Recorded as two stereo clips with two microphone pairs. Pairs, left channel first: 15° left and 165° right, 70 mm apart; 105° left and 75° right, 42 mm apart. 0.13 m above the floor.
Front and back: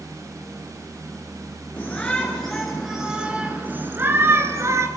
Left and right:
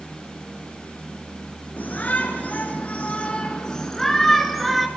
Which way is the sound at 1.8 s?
80° left.